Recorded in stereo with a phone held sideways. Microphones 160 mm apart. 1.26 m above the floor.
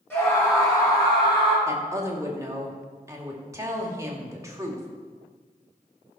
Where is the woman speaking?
20° right (ahead or behind), 2 m.